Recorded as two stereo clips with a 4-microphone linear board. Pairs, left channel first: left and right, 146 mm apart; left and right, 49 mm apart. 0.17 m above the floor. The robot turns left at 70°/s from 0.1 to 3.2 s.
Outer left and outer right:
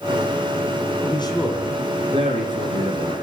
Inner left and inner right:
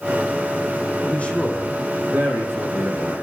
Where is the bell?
I don't hear a bell.